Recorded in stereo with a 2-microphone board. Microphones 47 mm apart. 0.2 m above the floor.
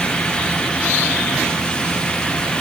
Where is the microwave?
I don't hear a microwave.